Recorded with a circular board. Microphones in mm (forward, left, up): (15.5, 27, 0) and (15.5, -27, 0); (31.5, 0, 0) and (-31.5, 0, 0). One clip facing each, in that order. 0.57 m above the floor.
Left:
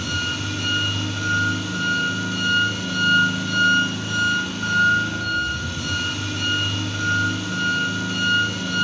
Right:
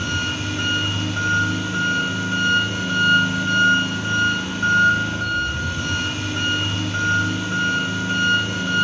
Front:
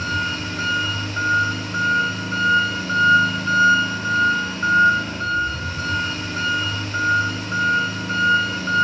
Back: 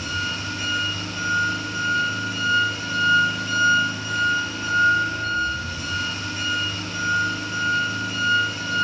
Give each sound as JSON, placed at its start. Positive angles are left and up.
{"t": 0.0, "sound": "an engine running", "azimuth_deg": -35, "distance_m": 1.8}